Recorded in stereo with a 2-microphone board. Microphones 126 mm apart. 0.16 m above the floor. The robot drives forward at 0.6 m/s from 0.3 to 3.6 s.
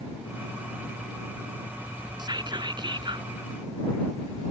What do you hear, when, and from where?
2.2 s whispering: 35° right (ahead or behind); by 3.3 s 40° right (ahead or behind)